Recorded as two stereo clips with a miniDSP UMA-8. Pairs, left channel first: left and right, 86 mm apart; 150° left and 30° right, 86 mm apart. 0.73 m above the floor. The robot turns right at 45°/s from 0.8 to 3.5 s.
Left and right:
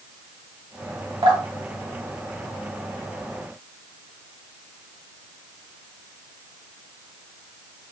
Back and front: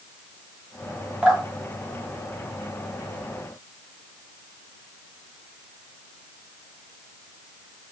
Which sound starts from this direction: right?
Dripping, at 1.2 s.